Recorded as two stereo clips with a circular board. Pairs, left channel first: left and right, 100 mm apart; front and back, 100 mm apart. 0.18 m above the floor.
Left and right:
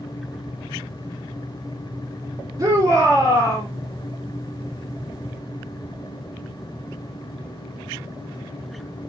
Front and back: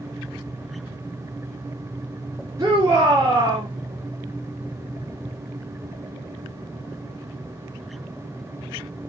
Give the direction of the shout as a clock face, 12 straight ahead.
4 o'clock.